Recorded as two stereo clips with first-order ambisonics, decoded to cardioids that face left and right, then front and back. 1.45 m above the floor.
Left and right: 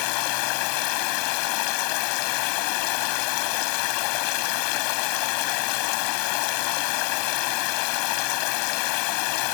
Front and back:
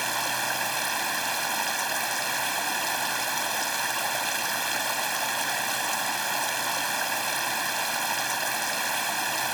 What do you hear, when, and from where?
0.0 s running water: 95° left